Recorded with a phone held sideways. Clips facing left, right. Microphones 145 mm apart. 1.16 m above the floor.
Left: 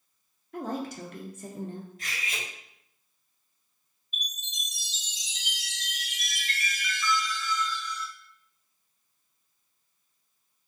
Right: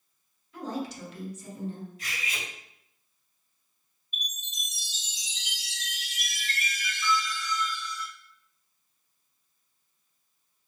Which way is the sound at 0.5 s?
55° left (ahead or behind).